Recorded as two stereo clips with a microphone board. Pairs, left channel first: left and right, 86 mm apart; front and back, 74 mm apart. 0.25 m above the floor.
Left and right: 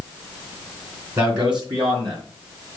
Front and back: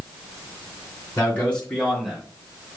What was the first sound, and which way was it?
A man speaking, 60° right.